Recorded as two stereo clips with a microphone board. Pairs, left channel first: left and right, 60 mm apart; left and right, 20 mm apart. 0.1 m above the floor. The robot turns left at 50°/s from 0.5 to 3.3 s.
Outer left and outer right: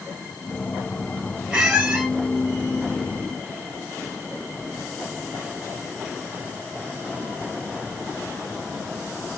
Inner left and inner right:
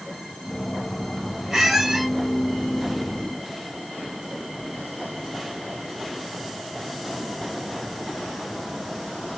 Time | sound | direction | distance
1.5 | a squeak | 15° right (ahead or behind) | 1.3 m